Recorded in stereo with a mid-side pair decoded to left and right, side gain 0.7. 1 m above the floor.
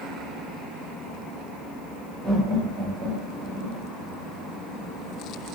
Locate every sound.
2.2 s laughter: 20° right, 1.7 m; by 3.8 s 60° right, 0.9 m